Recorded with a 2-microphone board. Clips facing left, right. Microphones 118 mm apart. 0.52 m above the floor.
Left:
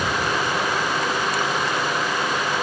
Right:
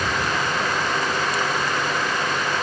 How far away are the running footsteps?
I don't hear running footsteps.